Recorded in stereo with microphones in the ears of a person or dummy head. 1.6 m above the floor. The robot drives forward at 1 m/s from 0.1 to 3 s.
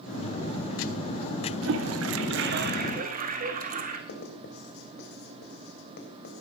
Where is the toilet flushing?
75° right (ahead or behind), 1.0 m; by 4.0 s 40° right (ahead or behind), 1.5 m.